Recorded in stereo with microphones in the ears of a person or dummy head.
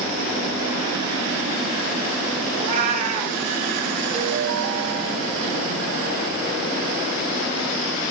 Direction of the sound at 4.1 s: 65° right (ahead or behind).